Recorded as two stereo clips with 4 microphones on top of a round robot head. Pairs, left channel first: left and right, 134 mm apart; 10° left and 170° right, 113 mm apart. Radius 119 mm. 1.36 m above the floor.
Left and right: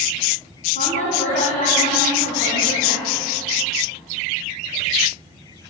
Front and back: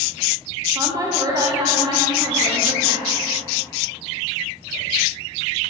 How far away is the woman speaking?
About 2 m.